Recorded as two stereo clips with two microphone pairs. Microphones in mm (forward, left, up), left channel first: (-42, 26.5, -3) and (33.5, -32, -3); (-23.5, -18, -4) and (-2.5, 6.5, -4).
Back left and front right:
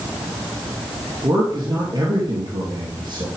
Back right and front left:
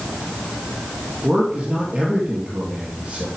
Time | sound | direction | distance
1.2 | a man speaking | 5° right | 3 m